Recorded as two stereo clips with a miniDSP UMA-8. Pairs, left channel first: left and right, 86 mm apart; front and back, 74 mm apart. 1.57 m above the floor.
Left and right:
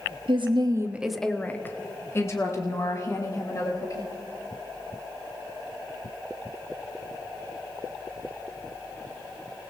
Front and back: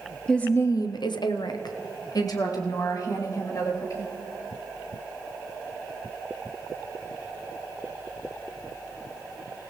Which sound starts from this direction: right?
A woman speaking, at 0.3 s.